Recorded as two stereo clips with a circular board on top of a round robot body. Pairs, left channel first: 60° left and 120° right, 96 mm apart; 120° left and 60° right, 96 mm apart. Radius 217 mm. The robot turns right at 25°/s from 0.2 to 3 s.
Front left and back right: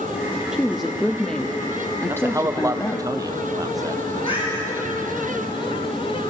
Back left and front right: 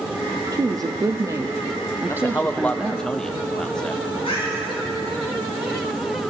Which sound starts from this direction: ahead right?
A woman speaking, at 0.5 s.